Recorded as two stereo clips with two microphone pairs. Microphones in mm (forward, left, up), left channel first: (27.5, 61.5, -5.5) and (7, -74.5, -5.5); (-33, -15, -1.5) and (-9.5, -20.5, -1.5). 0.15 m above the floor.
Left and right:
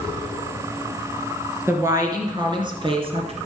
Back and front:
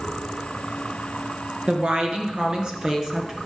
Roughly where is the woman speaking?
Ahead right.